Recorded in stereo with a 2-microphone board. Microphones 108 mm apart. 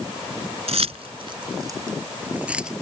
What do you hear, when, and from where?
0.7 s keys jangling: 70° right (ahead or behind); by 2.7 s 5° right (ahead or behind)